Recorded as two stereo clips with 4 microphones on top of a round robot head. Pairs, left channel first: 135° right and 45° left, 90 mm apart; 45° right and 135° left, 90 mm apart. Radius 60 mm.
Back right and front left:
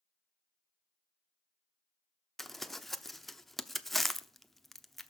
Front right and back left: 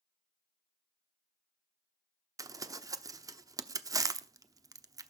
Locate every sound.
2.4 s crumpling: 135° left, 0.9 m